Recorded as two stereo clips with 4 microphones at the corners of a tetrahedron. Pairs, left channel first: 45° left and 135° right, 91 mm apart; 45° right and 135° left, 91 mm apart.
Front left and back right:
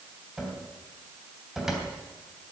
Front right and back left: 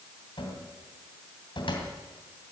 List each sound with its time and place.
0.4 s a cupboard door: 50° right, 2.5 m